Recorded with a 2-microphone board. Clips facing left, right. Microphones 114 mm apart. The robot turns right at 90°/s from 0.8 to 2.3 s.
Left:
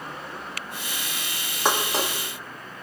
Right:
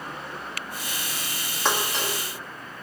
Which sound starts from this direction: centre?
Dishes clattering, at 1.6 s.